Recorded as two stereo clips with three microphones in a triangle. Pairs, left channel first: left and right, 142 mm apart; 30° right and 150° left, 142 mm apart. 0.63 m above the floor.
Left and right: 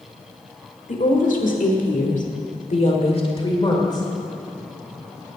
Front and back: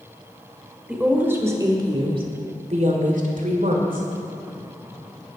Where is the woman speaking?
65° left, 2.0 m; by 4.1 s 150° left, 2 m.